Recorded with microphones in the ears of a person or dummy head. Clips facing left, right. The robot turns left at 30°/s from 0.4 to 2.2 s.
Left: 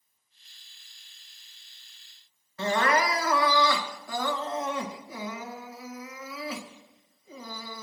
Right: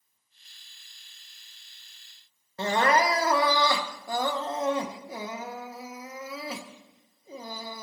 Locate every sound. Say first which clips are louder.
2.6 s crying: right 2 dB; 20° right (ahead or behind), 1.6 m